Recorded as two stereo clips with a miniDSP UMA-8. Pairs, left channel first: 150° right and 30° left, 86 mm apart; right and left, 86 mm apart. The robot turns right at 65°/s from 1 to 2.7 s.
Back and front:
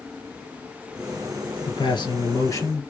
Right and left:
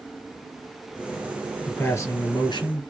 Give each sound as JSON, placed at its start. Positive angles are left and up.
{"t": 1.7, "sound": "a man speaking", "azimuth_deg": -160, "distance_m": 2.5}